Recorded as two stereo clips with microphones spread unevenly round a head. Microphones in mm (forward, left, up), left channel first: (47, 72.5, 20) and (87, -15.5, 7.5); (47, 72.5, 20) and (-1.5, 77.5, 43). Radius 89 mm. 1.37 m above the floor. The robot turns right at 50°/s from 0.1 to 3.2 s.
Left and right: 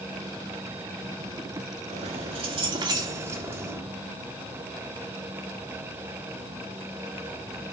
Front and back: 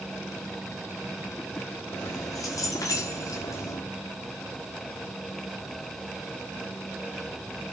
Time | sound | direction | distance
1.9 | keys jangling | 65° right | 2 m